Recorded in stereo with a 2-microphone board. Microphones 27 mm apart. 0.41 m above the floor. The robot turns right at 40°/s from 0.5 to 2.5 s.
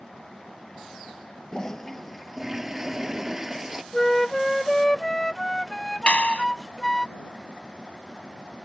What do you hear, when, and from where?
1.5 s a toilet flushing: 155° left; by 3.8 s 165° right
3.9 s a flute: 15° left (ahead or behind)
6.1 s a clap: 50° left (ahead or behind)